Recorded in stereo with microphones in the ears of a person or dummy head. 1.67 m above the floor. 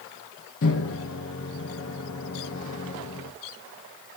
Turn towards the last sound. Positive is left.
turn(degrees=65)  # may be behind; listen again after turning